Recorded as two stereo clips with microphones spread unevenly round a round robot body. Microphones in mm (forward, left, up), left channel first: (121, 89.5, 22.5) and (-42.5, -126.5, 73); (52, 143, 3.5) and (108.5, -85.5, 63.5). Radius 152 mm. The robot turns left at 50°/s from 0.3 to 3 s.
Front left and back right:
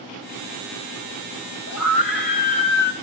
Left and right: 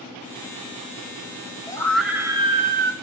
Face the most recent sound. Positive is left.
turn(degrees=-35)